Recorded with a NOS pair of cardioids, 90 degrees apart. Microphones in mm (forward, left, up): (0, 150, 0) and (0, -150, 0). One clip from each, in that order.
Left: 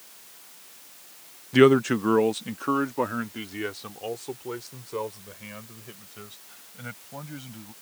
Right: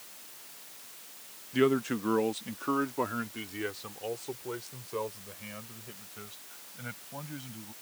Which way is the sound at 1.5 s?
50° left.